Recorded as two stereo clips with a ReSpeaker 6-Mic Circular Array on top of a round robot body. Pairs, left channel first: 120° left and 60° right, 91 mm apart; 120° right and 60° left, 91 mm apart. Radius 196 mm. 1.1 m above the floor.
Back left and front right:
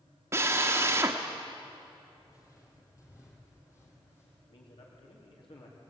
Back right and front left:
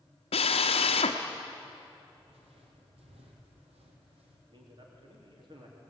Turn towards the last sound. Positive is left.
turn(degrees=95)